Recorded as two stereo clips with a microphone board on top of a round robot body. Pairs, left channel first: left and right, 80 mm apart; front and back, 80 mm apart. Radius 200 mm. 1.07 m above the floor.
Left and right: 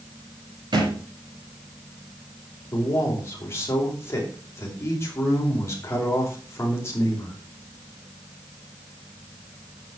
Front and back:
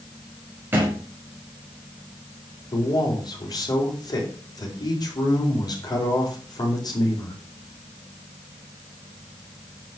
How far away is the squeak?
I don't hear a squeak.